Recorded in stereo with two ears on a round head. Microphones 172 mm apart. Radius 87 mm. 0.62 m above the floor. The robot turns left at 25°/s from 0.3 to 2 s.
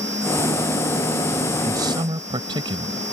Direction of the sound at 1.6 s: 15° right (ahead or behind).